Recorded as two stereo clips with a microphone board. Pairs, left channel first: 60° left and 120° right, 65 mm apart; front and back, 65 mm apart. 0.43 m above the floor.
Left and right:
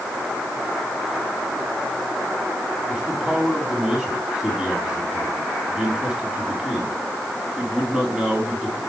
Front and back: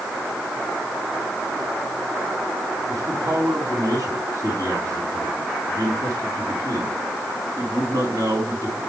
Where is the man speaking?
160° left, 3.5 m.